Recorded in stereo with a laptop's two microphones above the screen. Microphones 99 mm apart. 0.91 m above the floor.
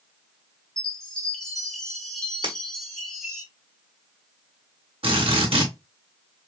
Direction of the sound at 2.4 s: 60° right (ahead or behind).